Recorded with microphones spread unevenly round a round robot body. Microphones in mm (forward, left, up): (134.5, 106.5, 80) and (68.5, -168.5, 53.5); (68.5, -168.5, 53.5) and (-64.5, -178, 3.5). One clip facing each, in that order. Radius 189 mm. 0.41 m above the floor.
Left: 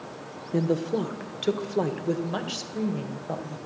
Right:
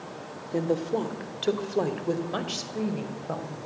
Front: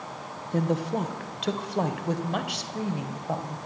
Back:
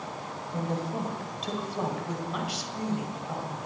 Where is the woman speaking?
5° left, 1.4 m; by 3.6 s 30° right, 2.5 m.